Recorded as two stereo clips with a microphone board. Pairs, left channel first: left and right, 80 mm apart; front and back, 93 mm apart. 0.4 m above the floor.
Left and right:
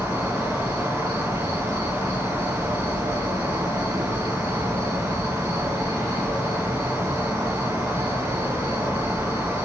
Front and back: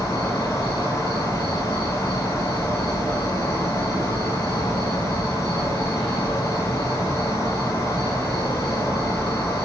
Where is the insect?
95° right, 1.5 m.